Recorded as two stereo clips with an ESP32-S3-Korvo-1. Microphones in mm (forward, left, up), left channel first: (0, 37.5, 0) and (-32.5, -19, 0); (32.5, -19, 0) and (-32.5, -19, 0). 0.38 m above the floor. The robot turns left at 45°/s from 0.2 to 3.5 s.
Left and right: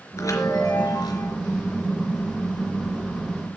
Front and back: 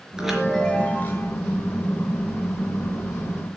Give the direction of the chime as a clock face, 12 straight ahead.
9 o'clock.